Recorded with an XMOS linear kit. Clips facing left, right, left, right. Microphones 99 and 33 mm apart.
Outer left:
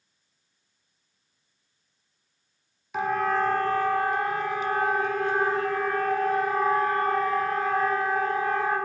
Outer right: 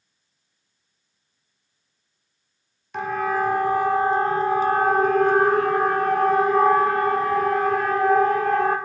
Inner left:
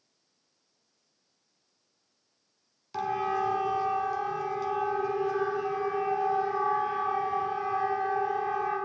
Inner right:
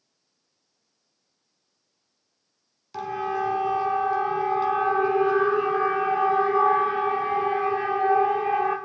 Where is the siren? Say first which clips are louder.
Outer right 1 dB, inner right 1 dB; 5° left (ahead or behind), 2 m; by 8.8 s 70° right (ahead or behind), 5 m.